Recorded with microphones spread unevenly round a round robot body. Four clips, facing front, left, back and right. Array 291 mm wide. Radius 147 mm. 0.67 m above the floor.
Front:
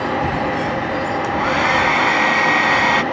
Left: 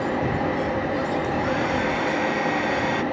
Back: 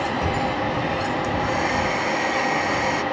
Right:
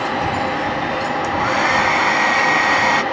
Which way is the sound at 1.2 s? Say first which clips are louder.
Right 5 dB, front 5 dB; 45° right.